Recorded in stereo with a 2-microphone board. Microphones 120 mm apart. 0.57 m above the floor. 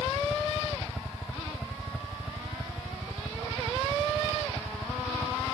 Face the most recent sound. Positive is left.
turn(degrees=0)  # may be behind; listen again after turning